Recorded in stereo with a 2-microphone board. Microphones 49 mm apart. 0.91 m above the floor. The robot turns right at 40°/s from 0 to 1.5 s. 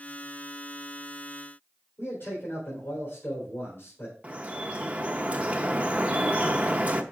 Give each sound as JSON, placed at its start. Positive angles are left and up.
{"t": 2.0, "sound": "a man speaking", "side_deg": 45, "distance_m": 3.0}
{"t": 4.2, "sound": "dripping", "side_deg": -30, "distance_m": 0.5}